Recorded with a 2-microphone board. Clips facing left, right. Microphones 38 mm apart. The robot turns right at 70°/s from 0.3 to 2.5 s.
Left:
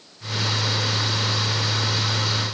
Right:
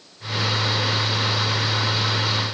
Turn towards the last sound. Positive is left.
No sound to turn to.